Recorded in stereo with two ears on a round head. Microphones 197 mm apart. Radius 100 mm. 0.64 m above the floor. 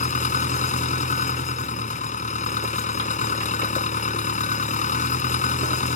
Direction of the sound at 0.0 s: 35° left (ahead or behind).